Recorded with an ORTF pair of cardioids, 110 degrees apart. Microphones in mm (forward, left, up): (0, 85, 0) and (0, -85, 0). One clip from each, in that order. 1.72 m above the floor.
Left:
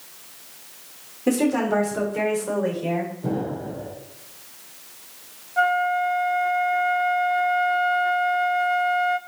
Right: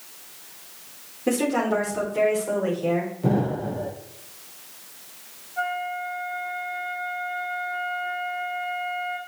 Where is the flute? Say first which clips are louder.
Left 8 dB; 50° left, 0.8 m.